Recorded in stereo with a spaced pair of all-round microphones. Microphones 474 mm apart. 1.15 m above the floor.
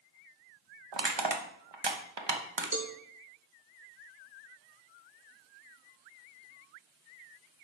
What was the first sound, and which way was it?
Crushing, 60° right (ahead or behind).